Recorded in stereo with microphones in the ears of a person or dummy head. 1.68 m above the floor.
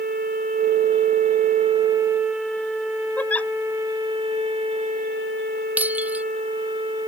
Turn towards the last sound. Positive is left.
turn(degrees=-10)  # may be behind; listen again after turning